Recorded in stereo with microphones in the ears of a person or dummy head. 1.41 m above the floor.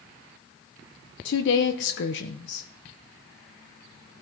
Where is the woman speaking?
65° left (ahead or behind), 0.7 m.